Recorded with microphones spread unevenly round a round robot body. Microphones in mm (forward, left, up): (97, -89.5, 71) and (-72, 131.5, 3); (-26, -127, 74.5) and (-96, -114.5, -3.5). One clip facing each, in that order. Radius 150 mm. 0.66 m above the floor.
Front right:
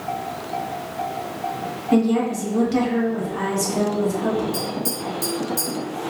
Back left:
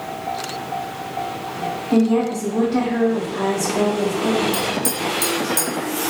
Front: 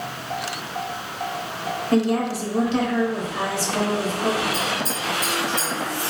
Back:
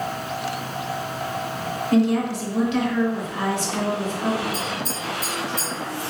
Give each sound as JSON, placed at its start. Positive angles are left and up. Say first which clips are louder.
{"t": 1.9, "sound": "a woman speaking", "louder": "back left 1 dB, back 1 dB", "azimuth_deg": -115, "distance_m": 1.2}
{"t": 4.5, "sound": "tapping", "louder": "back left 3 dB, front 2 dB", "azimuth_deg": 85, "distance_m": 1.2}